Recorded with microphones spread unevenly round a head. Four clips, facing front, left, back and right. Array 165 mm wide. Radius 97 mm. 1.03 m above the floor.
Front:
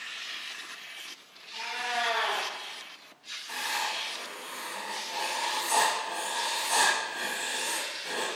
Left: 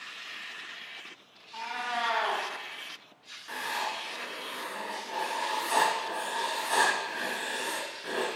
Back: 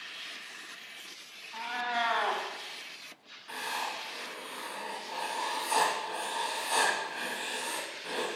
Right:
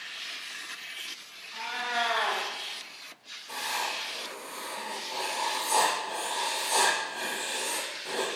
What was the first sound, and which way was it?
A cat meowing, 170° left.